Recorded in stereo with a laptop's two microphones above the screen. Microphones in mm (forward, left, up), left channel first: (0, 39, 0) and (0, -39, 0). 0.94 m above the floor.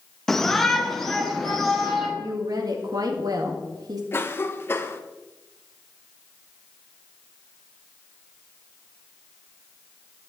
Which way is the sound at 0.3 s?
5° left (ahead or behind).